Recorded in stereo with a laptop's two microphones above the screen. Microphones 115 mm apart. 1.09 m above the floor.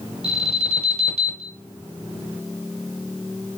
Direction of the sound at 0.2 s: 65° right (ahead or behind).